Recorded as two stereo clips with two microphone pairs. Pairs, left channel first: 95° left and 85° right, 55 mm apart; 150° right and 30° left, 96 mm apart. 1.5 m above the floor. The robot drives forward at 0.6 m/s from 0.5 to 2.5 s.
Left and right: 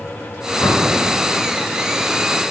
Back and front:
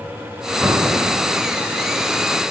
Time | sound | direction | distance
0.6 | an explosion | 100° left | 5 m